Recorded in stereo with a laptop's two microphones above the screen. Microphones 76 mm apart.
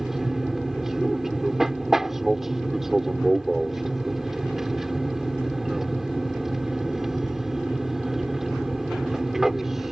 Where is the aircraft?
5° right (ahead or behind).